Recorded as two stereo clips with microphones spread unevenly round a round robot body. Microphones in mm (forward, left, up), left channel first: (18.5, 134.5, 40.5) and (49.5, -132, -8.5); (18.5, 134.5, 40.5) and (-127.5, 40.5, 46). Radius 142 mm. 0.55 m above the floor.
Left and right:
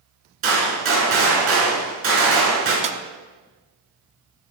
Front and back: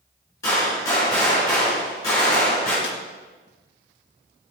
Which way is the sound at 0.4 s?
45° right.